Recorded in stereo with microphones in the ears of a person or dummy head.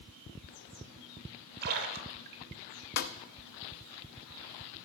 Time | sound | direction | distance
1.6 | a splash | 55° right (ahead or behind) | 1.2 m
3.0 | a snare drum | 55° left (ahead or behind) | 0.6 m